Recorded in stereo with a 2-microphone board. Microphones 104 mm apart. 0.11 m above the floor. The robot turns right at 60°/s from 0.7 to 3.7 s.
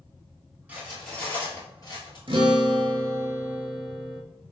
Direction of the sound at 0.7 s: 15° right (ahead or behind).